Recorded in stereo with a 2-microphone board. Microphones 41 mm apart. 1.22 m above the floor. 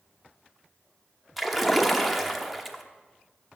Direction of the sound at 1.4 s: 5° right (ahead or behind).